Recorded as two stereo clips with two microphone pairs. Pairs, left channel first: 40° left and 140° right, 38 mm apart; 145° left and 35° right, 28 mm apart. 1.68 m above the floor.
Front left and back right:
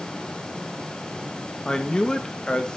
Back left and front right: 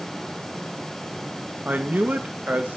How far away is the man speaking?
About 1.6 m.